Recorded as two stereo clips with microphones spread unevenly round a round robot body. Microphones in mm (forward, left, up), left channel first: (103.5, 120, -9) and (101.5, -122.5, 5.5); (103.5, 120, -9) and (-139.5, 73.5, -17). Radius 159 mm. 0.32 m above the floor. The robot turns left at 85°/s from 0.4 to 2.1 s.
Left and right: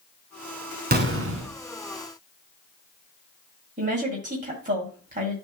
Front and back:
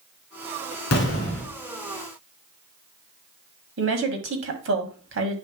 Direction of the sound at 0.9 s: 35° right.